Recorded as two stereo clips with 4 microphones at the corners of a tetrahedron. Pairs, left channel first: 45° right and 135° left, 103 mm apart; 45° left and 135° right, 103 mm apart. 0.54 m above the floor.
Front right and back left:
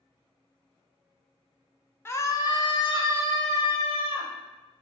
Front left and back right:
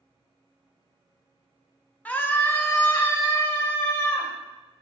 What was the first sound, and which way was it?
A scream, 15° right.